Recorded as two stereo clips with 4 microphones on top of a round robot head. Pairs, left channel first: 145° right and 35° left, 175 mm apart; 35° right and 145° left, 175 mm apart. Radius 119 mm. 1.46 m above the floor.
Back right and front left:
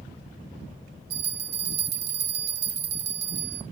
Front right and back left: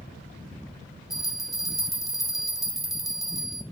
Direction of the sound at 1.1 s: 55° left.